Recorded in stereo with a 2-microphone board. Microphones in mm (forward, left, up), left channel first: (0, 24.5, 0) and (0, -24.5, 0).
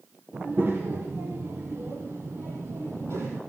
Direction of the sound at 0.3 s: 50° right (ahead or behind).